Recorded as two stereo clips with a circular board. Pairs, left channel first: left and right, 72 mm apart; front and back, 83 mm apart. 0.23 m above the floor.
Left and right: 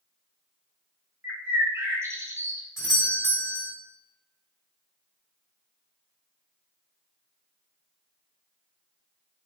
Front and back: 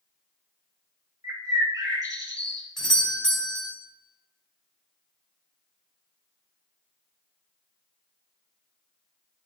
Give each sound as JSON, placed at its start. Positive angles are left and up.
{"t": 1.2, "sound": "a bird", "azimuth_deg": -140, "distance_m": 1.2}
{"t": 2.8, "sound": "a doorbell", "azimuth_deg": 80, "distance_m": 2.5}